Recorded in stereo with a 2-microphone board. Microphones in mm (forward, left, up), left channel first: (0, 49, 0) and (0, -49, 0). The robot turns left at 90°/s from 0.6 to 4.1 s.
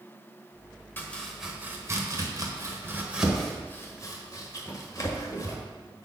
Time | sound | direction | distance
1.0 | chopping | 20° left (ahead or behind) | 1.3 m